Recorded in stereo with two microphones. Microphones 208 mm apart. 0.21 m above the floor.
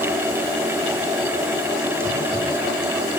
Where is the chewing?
No chewing in this recording.